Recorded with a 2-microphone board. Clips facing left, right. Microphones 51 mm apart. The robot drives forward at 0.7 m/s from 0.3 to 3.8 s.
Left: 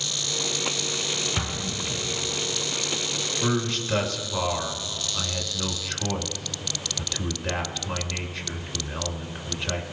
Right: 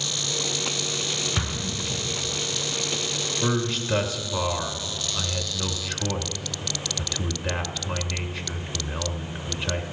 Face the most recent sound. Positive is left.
turn(degrees=-5)  # may be behind; listen again after turning